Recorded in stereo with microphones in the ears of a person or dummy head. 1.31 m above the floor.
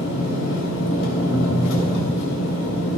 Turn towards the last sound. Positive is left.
turn(degrees=70)  # may be behind; listen again after turning